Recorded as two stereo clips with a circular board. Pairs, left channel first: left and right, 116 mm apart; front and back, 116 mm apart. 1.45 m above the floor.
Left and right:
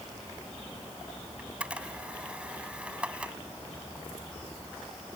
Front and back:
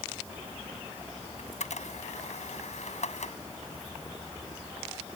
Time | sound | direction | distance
1.4 | a camera shutter | 10° right | ?